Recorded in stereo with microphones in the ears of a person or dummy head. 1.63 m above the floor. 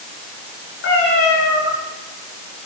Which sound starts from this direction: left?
A cat meowing, at 0.8 s.